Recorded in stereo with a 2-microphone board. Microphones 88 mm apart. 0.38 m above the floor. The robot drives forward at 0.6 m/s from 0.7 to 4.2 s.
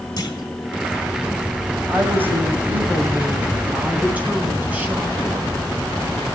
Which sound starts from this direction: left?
A clunk, at 0.2 s.